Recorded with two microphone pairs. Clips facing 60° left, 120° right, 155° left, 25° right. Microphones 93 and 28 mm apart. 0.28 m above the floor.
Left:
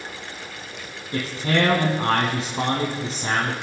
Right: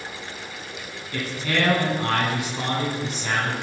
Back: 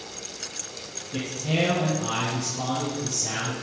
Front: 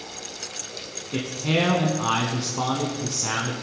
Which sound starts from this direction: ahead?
A man speaking, at 1.1 s.